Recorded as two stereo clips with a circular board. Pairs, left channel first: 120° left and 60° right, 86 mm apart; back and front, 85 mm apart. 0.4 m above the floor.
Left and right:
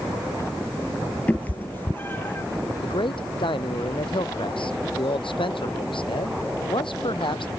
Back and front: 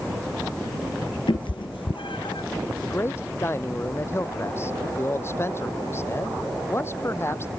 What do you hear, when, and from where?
1.3 s a cat meowing: 170° right; by 2.5 s 175° right
2.8 s a man speaking: 120° left